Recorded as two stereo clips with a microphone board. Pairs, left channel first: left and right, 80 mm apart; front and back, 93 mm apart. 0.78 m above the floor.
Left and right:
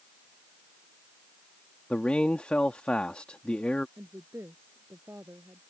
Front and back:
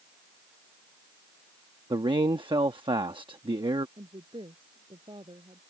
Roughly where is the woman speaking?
Behind right.